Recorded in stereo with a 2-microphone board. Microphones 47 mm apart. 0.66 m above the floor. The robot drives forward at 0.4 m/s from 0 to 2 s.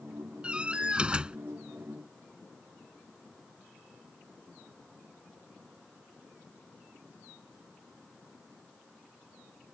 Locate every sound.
0.4 s a door slam: 25° right (ahead or behind); by 1.4 s 20° right (ahead or behind)